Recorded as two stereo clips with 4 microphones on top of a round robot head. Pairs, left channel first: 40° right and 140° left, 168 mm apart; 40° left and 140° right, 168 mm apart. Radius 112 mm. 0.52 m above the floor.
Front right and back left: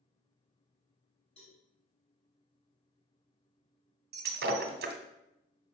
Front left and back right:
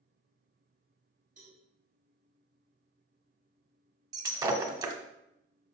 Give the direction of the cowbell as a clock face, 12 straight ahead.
3 o'clock.